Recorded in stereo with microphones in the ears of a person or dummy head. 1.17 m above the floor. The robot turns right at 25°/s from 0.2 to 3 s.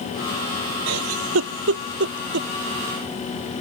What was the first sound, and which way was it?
A giggle, 75° right (ahead or behind).